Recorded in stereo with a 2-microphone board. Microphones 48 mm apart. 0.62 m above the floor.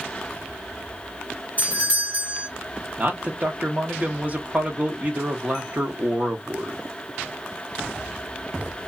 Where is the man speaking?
35° right (ahead or behind), 0.8 m.